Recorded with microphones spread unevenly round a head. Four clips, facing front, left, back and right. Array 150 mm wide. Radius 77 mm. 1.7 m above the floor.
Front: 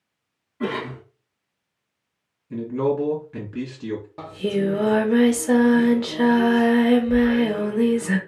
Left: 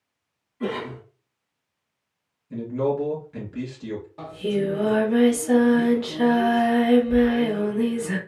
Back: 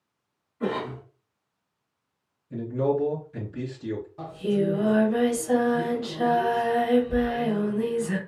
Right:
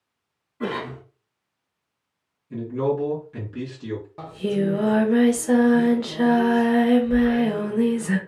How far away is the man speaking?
About 2 m.